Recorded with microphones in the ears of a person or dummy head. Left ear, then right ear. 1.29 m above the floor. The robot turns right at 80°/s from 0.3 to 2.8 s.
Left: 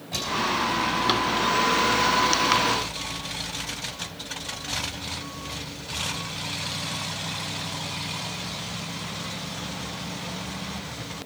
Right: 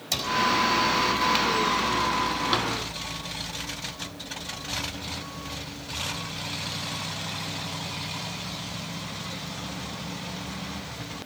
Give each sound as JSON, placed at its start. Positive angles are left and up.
{"t": 0.1, "sound": "a cupboard door", "side_deg": -75, "distance_m": 4.5}